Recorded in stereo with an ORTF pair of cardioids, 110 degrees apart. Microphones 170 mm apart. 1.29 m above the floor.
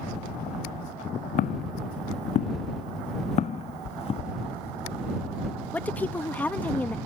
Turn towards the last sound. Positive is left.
turn(degrees=10)